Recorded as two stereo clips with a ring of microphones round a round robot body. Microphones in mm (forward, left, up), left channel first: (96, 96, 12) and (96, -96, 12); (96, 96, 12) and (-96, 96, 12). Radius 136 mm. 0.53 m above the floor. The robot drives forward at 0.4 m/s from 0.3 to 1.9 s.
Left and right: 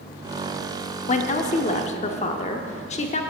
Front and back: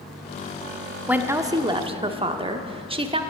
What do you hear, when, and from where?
1.1 s a woman speaking: 100° left, 0.8 m; by 3.2 s 130° left, 0.9 m